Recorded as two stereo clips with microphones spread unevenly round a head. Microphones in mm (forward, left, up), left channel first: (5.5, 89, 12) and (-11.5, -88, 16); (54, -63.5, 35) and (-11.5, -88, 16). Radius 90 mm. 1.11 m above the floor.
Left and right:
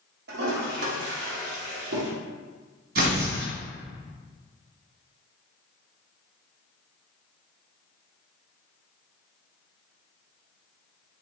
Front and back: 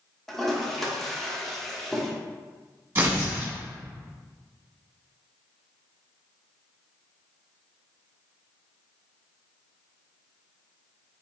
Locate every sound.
0.3 s a toilet flushing: 65° right, 0.9 m
3.0 s tearing paper: 90° right, 1.6 m